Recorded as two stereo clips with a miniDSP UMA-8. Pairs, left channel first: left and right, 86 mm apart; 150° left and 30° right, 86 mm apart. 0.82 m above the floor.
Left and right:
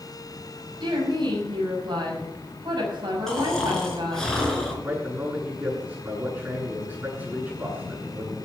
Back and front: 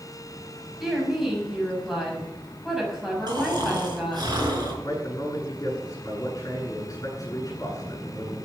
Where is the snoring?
5° left, 4.5 m.